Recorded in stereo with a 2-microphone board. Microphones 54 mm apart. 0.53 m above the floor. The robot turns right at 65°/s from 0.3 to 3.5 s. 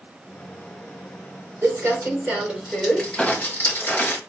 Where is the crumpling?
65° right (ahead or behind), 3.5 m; by 4.2 s 40° left (ahead or behind), 3.5 m.